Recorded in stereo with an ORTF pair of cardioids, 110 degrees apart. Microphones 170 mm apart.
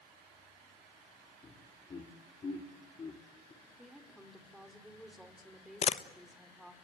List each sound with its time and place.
1.4 s laughter: 30° left, 3 m
3.6 s a woman speaking: straight ahead, 5 m
5.8 s a camera shutter: 40° left, 1.0 m